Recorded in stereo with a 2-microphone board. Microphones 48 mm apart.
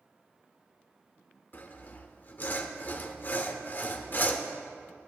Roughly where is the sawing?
Left.